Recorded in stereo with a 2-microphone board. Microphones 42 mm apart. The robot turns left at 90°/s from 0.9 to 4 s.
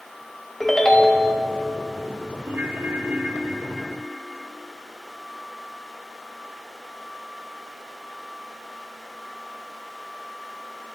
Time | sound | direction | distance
0.6 | a ringtone | 15° left | 0.9 m
2.4 | a ringtone | 50° right | 1.0 m